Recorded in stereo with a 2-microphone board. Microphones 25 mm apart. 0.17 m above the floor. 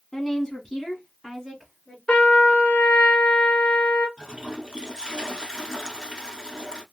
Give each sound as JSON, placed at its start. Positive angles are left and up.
{"t": 0.1, "sound": "a woman speaking", "side_deg": 25, "distance_m": 1.1}
{"t": 2.1, "sound": "a trumpet", "side_deg": 50, "distance_m": 1.2}
{"t": 4.2, "sound": "a toilet flushing", "side_deg": -20, "distance_m": 1.0}